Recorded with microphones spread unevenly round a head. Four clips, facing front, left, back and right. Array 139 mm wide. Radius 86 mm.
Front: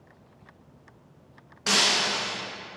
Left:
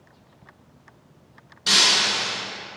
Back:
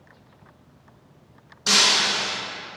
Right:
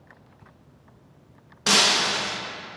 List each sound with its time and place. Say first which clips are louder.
1.7 s breaking glass: right 2 dB, back 2 dB; 110° right, 0.5 m